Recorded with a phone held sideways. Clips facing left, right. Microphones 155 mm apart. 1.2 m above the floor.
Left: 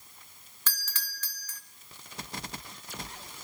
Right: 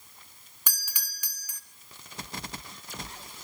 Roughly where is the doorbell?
Centre.